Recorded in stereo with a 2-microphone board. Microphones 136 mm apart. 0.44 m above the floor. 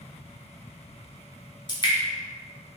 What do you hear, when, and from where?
1.7 s dripping: 35° left (ahead or behind), 0.9 m